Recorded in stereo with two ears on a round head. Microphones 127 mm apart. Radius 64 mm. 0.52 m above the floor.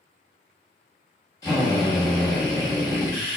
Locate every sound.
1.4 s a drill: 25° left (ahead or behind), 1.0 m